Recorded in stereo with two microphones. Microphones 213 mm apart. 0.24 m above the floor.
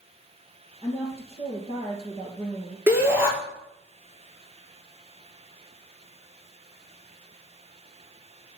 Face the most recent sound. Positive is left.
turn(degrees=-10)  # may be behind; listen again after turning